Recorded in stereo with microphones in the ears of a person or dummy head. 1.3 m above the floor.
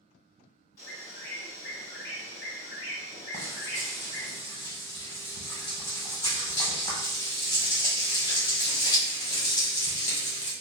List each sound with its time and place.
0.8 s a bird: 15° left (ahead or behind), 1.7 m
3.3 s frying: 25° left (ahead or behind), 0.9 m